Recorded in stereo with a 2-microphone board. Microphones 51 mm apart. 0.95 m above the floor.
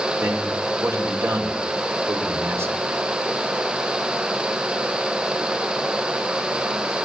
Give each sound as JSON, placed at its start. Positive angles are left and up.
{"t": 0.2, "sound": "a man speaking", "side_deg": -60, "distance_m": 3.5}